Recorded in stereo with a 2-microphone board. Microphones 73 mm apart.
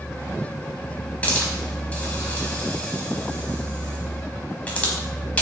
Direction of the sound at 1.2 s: 20° left (ahead or behind).